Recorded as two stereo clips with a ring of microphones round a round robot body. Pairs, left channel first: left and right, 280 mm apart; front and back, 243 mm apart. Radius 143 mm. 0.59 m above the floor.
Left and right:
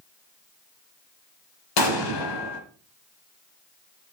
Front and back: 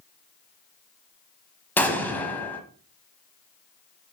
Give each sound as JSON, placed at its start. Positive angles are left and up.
{"t": 1.8, "sound": "an explosion", "azimuth_deg": 85, "distance_m": 1.5}